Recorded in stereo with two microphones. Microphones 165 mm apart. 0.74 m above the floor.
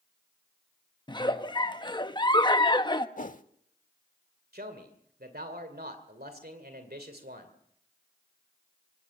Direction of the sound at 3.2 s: 50° left (ahead or behind).